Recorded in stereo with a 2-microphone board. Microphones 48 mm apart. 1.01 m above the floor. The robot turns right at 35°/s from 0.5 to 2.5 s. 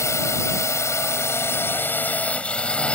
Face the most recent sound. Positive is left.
turn(degrees=155)